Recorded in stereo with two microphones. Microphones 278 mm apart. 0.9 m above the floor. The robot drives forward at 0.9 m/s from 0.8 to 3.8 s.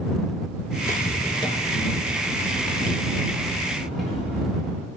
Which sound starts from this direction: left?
Footsteps, at 0.8 s.